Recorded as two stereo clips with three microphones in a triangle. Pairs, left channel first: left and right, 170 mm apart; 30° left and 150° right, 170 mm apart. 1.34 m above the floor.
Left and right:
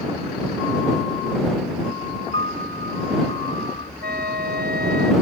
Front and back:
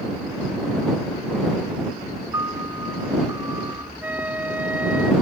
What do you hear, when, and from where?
2.3 s a piano: 140° left
4.0 s a flute: 70° right